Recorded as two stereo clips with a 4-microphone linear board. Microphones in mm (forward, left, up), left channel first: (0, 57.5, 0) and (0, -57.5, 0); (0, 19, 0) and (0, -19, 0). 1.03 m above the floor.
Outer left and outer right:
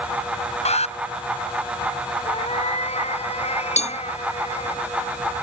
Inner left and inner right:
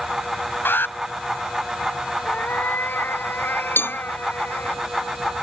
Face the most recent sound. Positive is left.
turn(degrees=80)